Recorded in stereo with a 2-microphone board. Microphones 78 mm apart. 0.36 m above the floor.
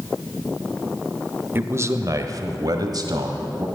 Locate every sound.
1.6 s a man speaking: 30° right (ahead or behind), 0.9 m; by 3.7 s 60° right (ahead or behind), 2.0 m